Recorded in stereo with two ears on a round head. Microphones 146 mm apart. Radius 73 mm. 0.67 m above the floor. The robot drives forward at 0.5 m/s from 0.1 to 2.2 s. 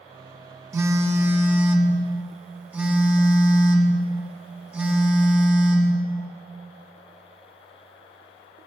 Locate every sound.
0.7 s a phone buzzing: 20° right (ahead or behind), 0.7 m; by 5.9 s 10° right (ahead or behind), 1.4 m